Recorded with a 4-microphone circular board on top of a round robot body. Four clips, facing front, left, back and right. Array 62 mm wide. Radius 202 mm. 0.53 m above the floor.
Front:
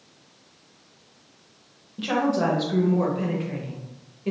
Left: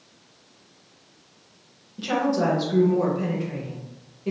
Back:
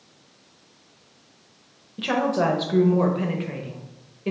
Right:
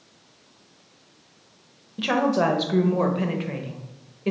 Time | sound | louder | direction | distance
2.0 | a woman speaking | right 2 dB, back 1 dB | 115° right | 0.9 m